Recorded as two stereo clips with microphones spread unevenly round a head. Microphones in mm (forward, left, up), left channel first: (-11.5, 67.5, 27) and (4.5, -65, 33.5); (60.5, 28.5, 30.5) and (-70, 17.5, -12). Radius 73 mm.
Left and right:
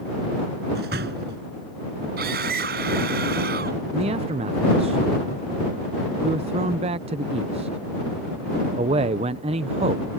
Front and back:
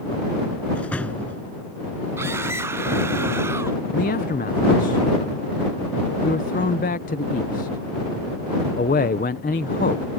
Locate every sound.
0.8 s a door slam: 75° right
2.2 s a scream: 100° right
3.9 s a man speaking: 35° right